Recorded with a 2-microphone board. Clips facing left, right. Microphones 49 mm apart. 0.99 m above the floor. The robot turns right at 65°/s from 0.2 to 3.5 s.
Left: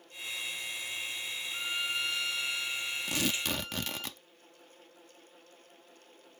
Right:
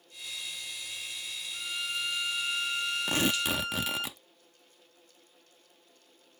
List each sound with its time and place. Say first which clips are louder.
1.5 s a violin: left 1 dB; 150° left; by 4.1 s 80° right
3.1 s tearing paper: right 4 dB; 40° right (ahead or behind); by 4.2 s 10° right (ahead or behind)